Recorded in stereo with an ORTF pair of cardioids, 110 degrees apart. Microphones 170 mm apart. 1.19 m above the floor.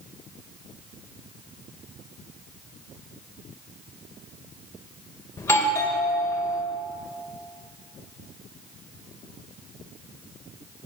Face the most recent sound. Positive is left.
turn(degrees=15)